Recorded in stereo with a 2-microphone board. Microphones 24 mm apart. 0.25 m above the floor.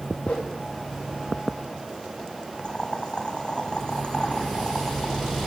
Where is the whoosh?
60° left (ahead or behind), 5 m.